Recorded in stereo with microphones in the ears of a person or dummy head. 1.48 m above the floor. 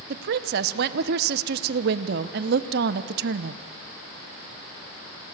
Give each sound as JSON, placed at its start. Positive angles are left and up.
{"t": 0.1, "sound": "a woman speaking", "side_deg": -65, "distance_m": 0.9}